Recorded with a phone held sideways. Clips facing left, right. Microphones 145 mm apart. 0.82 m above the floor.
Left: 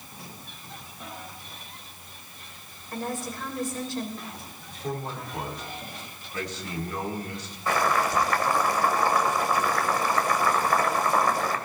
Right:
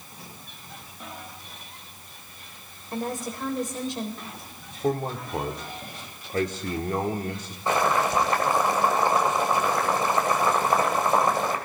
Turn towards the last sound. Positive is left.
turn(degrees=-25)  # may be behind; listen again after turning